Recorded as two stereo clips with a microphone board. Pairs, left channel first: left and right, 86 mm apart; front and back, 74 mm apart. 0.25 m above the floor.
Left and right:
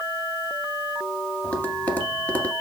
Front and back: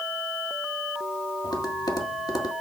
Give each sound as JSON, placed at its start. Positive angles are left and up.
{"t": 1.4, "sound": "tapping", "azimuth_deg": 20, "distance_m": 1.8}